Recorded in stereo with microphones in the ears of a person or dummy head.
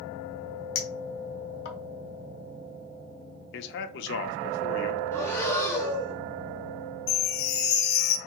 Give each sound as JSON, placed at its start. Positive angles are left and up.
{"t": 0.8, "sound": "a clink", "side_deg": 65, "distance_m": 1.0}
{"t": 3.5, "sound": "a man speaking", "side_deg": 60, "distance_m": 0.7}
{"t": 5.1, "sound": "breathing", "side_deg": 20, "distance_m": 1.5}
{"t": 7.1, "sound": "a chime", "side_deg": 70, "distance_m": 0.7}